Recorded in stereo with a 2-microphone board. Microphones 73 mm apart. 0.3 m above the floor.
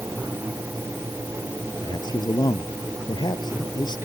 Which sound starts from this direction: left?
A man speaking, at 1.8 s.